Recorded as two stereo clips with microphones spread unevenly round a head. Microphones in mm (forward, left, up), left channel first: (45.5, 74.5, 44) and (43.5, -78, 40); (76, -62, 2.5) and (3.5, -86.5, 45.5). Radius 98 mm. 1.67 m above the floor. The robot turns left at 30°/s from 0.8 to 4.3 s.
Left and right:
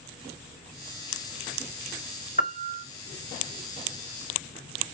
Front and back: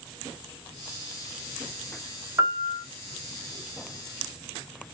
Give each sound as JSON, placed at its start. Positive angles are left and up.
{"t": 2.4, "sound": "a piano", "azimuth_deg": 145, "distance_m": 0.8}